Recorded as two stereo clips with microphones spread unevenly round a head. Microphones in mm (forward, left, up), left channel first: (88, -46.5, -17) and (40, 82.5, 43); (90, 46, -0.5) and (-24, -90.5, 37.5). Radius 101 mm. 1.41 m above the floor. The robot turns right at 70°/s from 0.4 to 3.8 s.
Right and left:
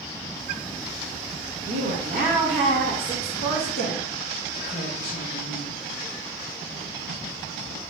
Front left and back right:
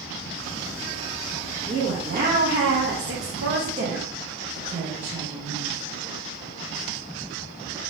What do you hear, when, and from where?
1.7 s a woman speaking: 135° left, 0.9 m; by 5.7 s 75° right, 0.9 m